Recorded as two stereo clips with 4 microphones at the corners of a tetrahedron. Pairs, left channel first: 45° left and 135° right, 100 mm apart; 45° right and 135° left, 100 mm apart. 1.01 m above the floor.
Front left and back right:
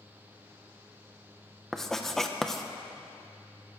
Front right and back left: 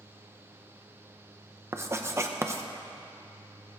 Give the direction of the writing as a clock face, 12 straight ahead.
8 o'clock.